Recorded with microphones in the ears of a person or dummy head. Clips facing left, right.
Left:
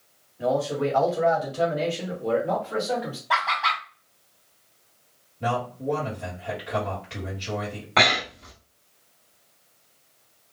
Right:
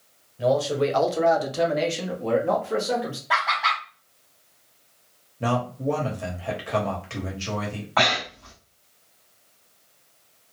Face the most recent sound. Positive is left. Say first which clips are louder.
# left 1 dB
turn(degrees=30)  # may be behind; listen again after turning